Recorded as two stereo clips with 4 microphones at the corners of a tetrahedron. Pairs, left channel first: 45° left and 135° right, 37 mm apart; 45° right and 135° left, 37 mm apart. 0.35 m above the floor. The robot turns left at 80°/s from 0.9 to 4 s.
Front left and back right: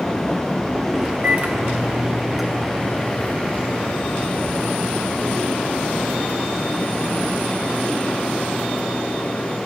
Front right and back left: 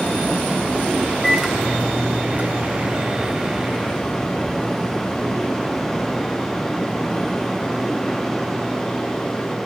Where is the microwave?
130° right, 1.7 m; by 9.6 s 10° left, 1.7 m.